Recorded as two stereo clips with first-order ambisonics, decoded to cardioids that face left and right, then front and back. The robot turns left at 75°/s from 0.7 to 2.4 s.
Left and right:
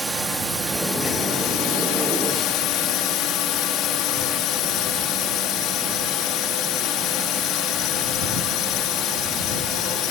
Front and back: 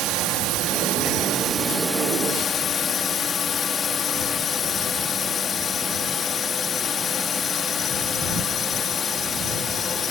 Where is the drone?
170° right; by 10.1 s 60° left.